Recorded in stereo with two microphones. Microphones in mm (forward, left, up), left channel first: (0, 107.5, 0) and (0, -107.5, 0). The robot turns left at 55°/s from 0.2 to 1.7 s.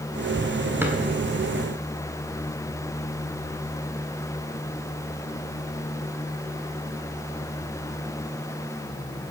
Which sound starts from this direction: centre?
A drawer, at 0.8 s.